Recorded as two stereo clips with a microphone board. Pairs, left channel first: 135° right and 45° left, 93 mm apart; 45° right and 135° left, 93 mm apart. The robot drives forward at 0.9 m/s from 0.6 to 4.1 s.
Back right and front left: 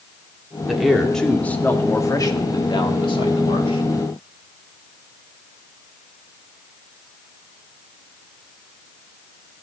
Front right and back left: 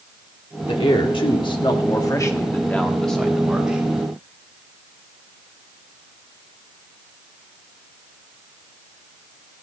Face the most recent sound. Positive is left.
turn(degrees=-150)